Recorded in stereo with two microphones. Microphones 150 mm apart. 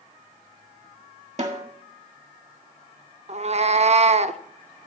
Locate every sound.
1.4 s a snare drum: 50° right (ahead or behind), 1.4 m
3.3 s a cat meowing: 45° right (ahead or behind), 0.5 m